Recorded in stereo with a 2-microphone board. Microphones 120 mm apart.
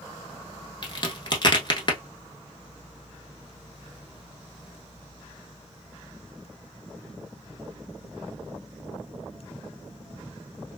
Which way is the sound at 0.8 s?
40° left (ahead or behind).